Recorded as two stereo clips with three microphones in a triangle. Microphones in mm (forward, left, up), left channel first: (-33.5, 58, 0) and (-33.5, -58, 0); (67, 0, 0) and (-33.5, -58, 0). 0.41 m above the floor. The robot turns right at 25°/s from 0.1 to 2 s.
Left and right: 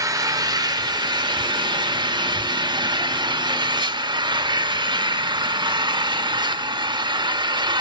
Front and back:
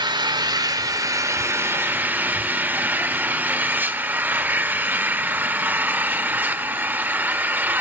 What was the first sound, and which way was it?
An engine running, 130° right.